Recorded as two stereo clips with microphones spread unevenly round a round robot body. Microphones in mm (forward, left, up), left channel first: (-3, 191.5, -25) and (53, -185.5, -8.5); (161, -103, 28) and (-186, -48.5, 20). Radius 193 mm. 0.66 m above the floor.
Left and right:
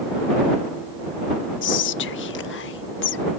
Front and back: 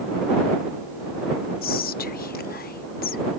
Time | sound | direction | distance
1.6 | whispering | 50° left | ?